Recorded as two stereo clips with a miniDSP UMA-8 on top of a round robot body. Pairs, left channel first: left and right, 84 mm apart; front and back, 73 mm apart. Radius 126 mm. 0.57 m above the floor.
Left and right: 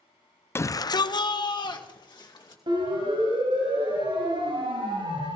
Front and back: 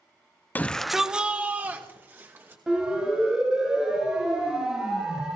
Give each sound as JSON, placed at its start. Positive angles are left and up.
{"t": 0.6, "sound": "a shout", "azimuth_deg": 50, "distance_m": 0.7}
{"t": 2.7, "sound": "a siren", "azimuth_deg": -100, "distance_m": 5.5}